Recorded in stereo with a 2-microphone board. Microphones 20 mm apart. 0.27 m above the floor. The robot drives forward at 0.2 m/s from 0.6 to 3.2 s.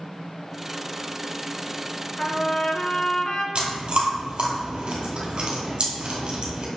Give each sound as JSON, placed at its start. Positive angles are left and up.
{"t": 2.2, "sound": "a trumpet", "side_deg": 40, "distance_m": 0.7}
{"t": 3.5, "sound": "chewing", "side_deg": -45, "distance_m": 1.6}